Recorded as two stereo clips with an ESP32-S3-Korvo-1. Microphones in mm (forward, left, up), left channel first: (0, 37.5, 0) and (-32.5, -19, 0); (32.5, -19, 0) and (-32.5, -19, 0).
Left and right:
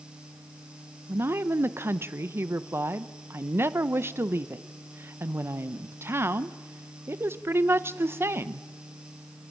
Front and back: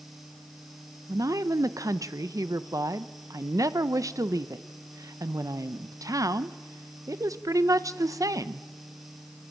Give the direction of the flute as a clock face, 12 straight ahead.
I don't hear a flute.